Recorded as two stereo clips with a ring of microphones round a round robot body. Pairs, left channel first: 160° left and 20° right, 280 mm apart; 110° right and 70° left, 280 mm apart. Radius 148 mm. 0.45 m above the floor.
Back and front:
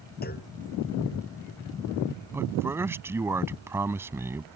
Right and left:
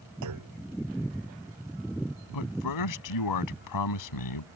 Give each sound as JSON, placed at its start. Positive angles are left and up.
{"t": 0.2, "sound": "a clunk", "azimuth_deg": 100}
{"t": 2.3, "sound": "a man speaking", "azimuth_deg": -105}